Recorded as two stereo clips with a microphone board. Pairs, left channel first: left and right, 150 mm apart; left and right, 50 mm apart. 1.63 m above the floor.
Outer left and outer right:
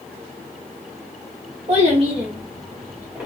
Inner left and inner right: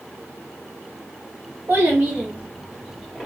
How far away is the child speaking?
About 1.2 m.